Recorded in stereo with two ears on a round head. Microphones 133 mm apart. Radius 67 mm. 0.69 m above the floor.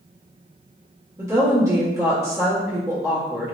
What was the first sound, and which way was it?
A woman speaking, 20° right (ahead or behind).